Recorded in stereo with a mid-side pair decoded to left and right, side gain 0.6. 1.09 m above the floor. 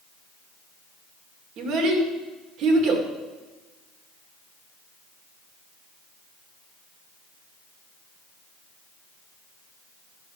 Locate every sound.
1.6 s a child speaking: 60° right, 2 m